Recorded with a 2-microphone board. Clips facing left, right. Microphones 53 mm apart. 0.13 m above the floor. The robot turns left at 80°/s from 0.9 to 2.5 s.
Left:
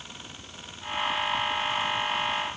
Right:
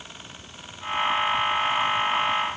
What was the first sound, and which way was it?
Only background noise.